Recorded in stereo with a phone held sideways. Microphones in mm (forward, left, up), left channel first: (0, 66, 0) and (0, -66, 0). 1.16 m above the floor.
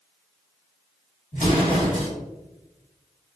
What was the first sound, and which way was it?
An explosion, 85° left.